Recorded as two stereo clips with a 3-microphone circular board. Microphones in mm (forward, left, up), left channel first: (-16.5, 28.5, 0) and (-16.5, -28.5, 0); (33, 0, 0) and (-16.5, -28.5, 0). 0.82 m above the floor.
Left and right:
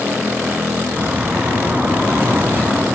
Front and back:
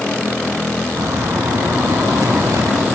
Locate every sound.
1.0 s a bird: 150° right, 5 m